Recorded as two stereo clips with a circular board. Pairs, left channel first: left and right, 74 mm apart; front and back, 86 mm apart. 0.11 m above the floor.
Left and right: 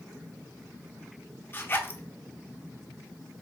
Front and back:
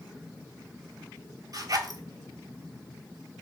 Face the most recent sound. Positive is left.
turn(degrees=145)